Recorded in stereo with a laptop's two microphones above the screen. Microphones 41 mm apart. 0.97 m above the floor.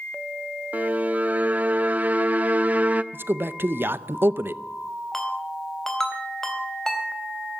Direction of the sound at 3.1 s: 60° right (ahead or behind).